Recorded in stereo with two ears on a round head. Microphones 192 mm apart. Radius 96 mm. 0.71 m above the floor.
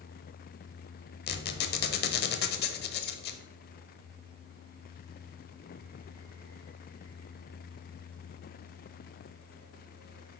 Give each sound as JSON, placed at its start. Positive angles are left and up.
{"t": 1.3, "sound": "a squeak", "side_deg": 50, "distance_m": 0.8}